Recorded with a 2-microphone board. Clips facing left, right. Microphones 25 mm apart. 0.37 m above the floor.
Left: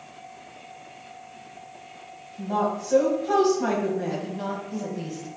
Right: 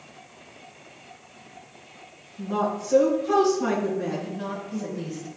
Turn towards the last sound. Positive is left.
turn(degrees=45)  # may be behind; listen again after turning